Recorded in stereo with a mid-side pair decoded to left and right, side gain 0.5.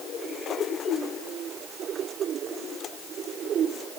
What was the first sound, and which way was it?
Only background noise.